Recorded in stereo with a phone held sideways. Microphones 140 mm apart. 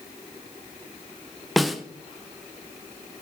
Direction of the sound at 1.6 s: Centre (ahead or behind).